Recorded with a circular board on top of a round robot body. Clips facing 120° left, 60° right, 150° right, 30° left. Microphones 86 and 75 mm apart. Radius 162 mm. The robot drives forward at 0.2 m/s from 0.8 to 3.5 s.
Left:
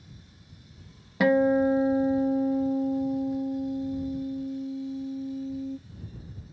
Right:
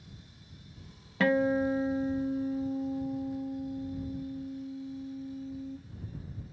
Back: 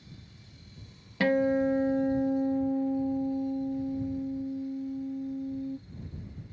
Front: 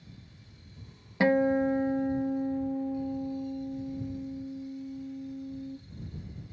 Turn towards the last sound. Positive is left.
turn(degrees=155)